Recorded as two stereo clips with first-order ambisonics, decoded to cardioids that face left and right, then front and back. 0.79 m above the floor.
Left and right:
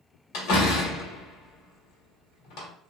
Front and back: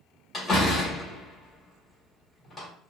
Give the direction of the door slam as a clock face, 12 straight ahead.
10 o'clock.